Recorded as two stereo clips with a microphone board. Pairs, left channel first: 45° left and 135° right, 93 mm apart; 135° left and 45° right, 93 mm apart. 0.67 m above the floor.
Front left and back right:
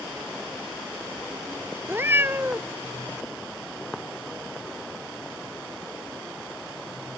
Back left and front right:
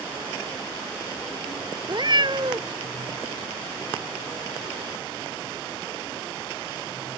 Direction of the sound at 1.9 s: 70° right.